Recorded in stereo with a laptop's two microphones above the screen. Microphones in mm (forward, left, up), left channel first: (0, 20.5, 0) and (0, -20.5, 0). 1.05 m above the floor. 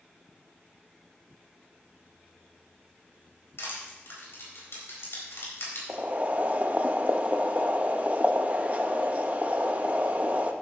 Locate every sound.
3.6 s crushing: 85° left, 4 m
5.9 s boiling: 40° right (ahead or behind), 0.6 m